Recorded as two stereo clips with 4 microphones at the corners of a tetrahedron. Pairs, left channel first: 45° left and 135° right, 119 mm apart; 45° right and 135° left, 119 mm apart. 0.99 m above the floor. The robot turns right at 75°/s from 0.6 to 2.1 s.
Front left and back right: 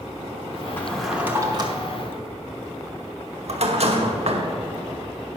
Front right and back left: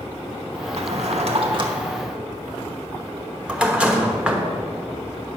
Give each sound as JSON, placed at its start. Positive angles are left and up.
{"t": 0.8, "sound": "a drawer", "azimuth_deg": 115, "distance_m": 1.0}